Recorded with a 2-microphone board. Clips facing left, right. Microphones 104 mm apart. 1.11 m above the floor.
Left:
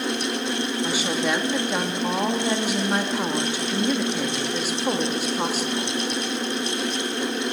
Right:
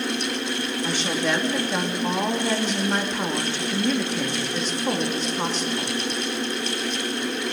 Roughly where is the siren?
No siren in this recording.